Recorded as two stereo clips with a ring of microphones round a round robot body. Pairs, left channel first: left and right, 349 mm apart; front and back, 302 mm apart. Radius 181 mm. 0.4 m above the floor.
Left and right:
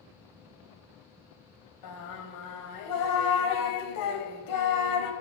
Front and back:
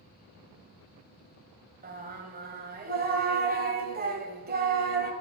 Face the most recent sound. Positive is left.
turn(degrees=120)